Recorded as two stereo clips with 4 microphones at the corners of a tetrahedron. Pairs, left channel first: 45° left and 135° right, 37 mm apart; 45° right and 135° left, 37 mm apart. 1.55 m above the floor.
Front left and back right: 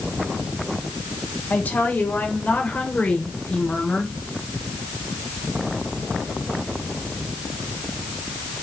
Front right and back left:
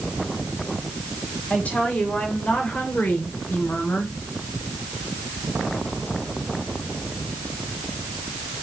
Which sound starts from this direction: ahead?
A woman speaking, at 1.5 s.